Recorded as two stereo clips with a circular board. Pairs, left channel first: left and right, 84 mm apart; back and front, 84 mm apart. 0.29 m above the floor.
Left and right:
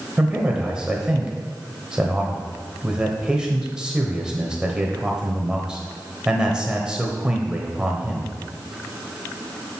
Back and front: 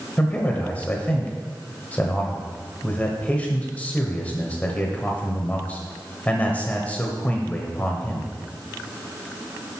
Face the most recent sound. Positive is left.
turn(degrees=-150)